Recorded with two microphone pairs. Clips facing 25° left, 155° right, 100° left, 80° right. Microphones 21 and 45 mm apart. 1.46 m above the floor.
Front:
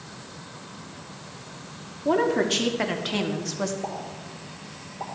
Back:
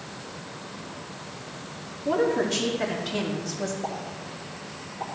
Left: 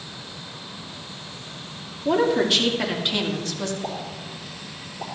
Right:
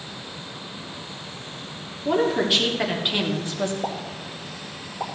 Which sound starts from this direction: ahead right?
A pop, at 3.8 s.